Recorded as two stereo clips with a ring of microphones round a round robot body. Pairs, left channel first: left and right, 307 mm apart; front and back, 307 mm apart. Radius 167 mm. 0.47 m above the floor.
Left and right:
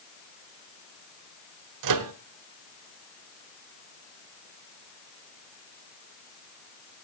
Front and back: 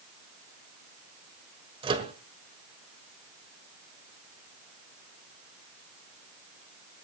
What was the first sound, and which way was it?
A microwave, 105° right.